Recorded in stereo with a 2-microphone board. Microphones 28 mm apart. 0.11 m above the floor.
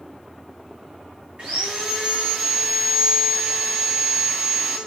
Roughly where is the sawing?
Right.